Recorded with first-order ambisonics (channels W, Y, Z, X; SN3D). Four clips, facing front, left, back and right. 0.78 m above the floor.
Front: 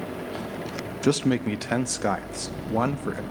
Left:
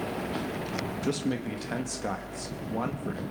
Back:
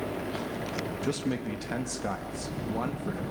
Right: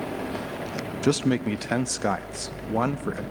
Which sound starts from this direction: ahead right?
A man speaking, at 1.0 s.